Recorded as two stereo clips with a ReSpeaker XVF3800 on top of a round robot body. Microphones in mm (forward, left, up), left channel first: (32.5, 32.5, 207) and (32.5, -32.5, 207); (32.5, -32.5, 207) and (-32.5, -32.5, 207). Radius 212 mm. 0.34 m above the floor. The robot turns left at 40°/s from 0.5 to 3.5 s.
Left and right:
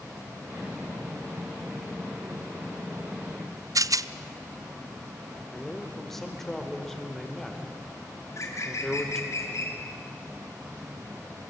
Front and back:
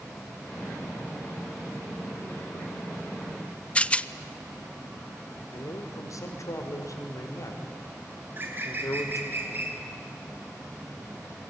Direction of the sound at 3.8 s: 70° right.